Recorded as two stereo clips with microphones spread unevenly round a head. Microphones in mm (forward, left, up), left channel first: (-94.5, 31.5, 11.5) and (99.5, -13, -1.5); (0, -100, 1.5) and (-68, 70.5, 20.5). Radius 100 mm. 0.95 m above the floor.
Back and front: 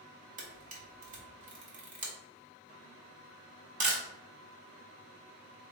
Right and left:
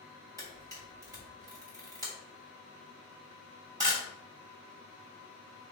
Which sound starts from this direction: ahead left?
A camera shutter, at 0.4 s.